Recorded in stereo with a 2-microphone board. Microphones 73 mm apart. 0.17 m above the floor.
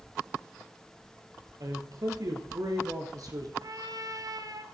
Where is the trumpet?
55° right (ahead or behind), 1.6 m.